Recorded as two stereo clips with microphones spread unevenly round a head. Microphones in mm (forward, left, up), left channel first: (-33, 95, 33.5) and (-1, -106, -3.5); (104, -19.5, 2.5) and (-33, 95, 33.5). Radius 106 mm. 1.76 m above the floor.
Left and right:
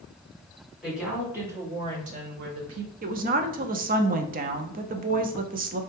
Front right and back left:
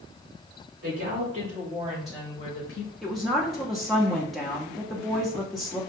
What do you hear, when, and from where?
0.8 s a woman speaking: 175° right, 1.9 m; by 2.9 s 65° right, 0.9 m
3.0 s a woman speaking: 135° right, 0.5 m